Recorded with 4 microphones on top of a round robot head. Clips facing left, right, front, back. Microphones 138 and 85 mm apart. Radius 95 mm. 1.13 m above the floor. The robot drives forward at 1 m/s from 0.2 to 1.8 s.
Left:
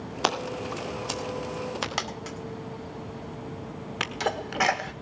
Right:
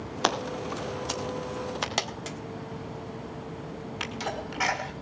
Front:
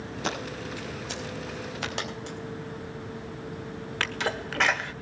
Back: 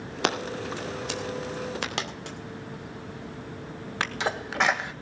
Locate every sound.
0.2 s scissors: 175° left, 2.5 m
2.0 s a dropped coin: 155° right, 1.7 m
4.0 s a sneeze: 110° left, 1.5 m